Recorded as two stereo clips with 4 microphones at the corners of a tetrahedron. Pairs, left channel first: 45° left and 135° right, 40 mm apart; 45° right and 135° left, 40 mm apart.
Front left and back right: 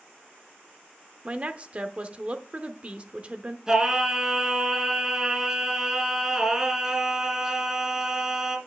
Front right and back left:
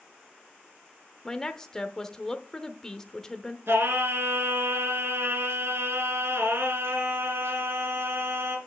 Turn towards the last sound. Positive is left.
turn(degrees=150)